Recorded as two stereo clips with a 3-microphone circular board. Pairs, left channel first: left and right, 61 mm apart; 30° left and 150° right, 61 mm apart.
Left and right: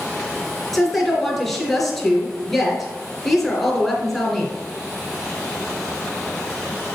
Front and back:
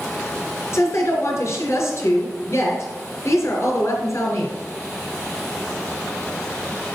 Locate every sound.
0.7 s a woman speaking: straight ahead, 2.5 m